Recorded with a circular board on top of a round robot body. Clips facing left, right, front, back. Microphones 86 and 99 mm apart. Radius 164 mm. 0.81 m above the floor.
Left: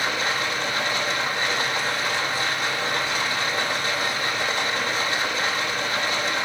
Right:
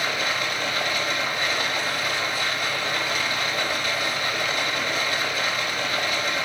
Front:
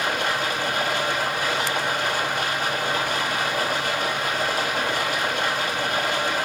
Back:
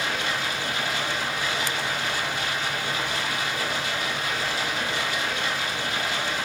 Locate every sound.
0.0 s running water: 35° left, 4 m